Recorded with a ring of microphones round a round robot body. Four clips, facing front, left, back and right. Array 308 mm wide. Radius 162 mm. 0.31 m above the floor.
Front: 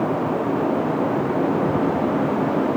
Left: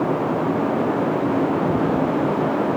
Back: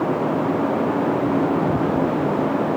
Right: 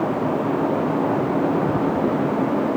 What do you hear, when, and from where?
Only background noise.